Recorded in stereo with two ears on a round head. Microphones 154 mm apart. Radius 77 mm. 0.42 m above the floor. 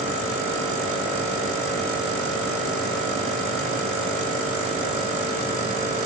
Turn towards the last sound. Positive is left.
No sound to turn to.